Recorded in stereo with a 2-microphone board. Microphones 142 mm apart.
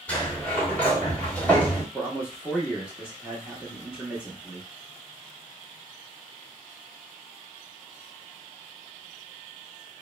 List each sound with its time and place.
0.1 s a sliding door: 10° left (ahead or behind), 1.2 m
1.9 s a man speaking: 10° right (ahead or behind), 0.8 m